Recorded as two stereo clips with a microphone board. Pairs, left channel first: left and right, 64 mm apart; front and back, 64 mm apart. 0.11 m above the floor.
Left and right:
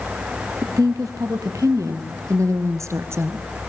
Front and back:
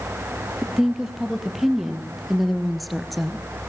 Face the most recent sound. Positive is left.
turn(degrees=-85)